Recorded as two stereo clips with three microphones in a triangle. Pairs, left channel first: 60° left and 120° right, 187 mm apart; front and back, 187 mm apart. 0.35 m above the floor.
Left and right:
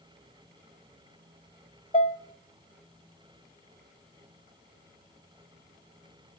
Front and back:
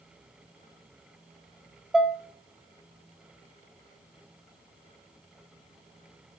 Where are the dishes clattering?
95° left, 1.0 m.